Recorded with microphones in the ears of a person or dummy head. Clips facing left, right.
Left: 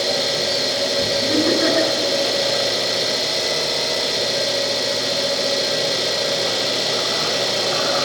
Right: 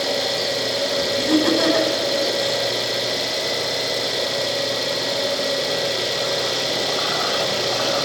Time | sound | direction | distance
0.0 | an engine running | centre (ahead or behind) | 4.5 m
1.2 | laughter | 75° right (ahead or behind) | 8.5 m